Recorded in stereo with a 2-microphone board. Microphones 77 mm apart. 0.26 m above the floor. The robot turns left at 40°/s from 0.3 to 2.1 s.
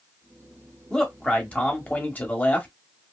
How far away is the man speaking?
About 0.9 m.